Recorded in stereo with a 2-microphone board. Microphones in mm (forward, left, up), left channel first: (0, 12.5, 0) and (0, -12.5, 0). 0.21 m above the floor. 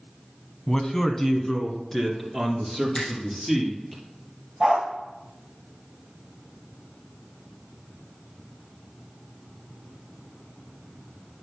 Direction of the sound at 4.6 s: 10° right (ahead or behind).